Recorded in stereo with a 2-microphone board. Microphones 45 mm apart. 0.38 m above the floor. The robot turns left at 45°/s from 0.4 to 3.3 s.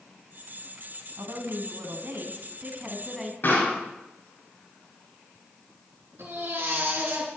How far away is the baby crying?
About 4 m.